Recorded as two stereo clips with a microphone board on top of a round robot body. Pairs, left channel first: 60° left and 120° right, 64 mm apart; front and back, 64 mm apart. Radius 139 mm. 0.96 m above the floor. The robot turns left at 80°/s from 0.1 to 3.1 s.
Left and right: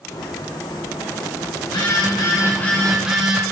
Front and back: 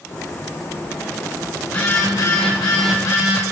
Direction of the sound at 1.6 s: 80° left.